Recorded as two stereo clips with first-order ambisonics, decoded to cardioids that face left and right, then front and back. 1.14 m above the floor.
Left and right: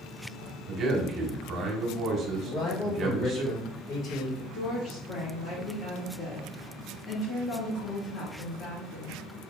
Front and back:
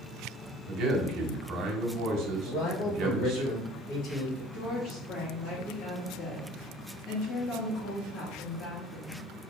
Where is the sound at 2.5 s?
40° left, 1.7 m.